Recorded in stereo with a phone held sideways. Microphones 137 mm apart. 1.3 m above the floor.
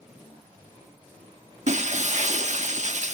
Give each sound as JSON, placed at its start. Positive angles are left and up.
{"t": 1.7, "sound": "breaking glass", "side_deg": -60, "distance_m": 1.1}